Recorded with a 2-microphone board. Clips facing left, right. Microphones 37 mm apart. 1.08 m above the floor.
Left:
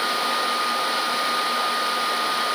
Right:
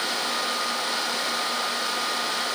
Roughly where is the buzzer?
I don't hear a buzzer.